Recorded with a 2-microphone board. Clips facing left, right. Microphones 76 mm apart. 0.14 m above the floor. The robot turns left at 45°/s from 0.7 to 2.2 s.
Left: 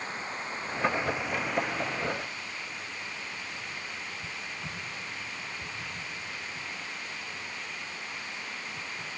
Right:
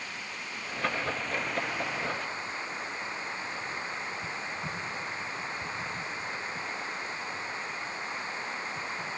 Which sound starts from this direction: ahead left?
Running water, at 0.0 s.